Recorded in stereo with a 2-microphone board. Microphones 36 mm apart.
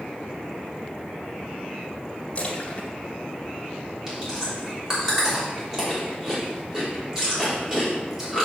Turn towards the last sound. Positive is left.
turn(degrees=-15)  # may be behind; listen again after turning